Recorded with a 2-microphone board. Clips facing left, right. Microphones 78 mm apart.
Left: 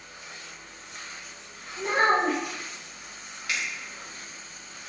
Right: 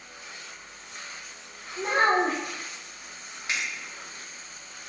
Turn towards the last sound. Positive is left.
turn(degrees=-25)  # may be behind; listen again after turning